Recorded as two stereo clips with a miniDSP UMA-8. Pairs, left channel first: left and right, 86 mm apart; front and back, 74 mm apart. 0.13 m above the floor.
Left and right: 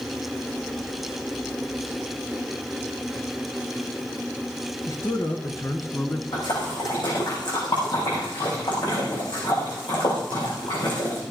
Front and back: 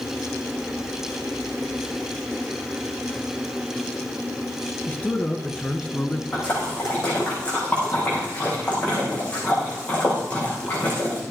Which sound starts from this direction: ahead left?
A man speaking, at 4.9 s.